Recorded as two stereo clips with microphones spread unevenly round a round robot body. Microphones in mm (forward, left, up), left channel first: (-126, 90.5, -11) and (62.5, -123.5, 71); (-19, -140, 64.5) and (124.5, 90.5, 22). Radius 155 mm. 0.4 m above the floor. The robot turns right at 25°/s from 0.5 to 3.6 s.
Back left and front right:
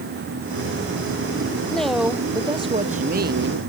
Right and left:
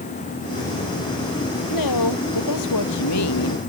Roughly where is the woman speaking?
Behind right.